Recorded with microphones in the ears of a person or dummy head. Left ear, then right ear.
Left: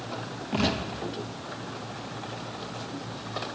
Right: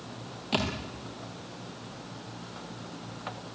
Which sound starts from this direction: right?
A thud, at 0.5 s.